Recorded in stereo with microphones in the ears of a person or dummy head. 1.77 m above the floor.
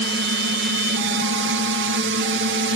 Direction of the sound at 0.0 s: 55° right (ahead or behind).